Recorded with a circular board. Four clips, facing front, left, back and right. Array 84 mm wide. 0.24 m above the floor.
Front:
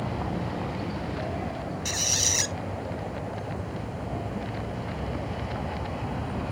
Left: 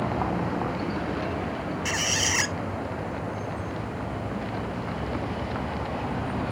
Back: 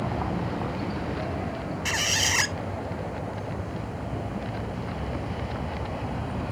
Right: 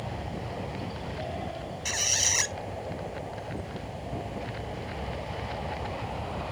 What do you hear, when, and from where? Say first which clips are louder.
0.0 s a vehicle: left 10 dB, back 2 dB; 105° left; by 6.5 s 90° left
1.9 s a squeak: left 5 dB, back 4 dB; 155° left